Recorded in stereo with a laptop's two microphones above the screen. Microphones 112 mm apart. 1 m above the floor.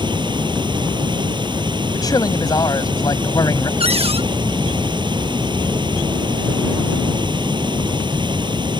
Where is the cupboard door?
60° right (ahead or behind).